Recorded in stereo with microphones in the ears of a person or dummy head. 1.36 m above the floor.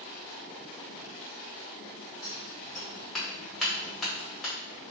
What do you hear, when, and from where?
2.2 s scissors: 10° left (ahead or behind), 1.6 m